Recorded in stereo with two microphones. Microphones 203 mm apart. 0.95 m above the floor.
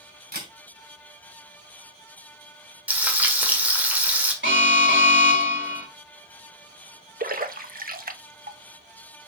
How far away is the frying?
About 1.5 m.